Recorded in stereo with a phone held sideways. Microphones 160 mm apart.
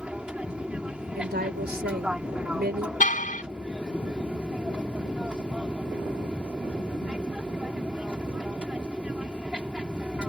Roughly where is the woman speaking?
Right.